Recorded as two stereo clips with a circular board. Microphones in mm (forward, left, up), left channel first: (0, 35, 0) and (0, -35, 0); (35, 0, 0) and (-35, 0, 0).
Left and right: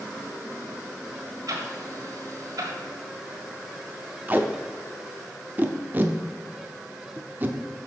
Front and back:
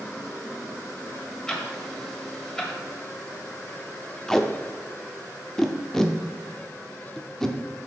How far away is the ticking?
About 1.6 m.